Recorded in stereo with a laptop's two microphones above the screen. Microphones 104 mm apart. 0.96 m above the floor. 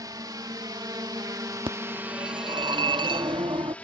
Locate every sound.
0.0 s a drone: 40° right (ahead or behind); by 3.9 s 15° left (ahead or behind)
1.7 s a phone ringing: 50° right (ahead or behind)